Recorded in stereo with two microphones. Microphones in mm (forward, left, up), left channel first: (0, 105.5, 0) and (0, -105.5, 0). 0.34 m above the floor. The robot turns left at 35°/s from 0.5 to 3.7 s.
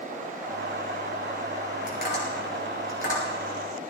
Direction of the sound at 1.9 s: 45° left (ahead or behind).